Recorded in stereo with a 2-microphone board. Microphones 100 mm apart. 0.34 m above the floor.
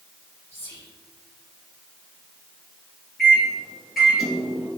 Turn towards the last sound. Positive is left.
turn(degrees=0)  # may be behind; listen again after turning